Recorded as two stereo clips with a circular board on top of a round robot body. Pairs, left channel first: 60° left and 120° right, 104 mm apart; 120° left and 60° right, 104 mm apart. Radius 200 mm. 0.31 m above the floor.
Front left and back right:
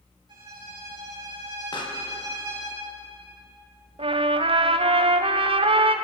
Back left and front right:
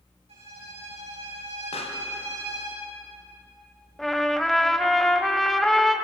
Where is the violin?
75° right, 7.5 m.